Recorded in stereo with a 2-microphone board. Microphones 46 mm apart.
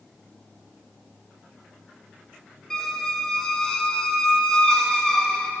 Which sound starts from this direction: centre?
A squeak, at 2.7 s.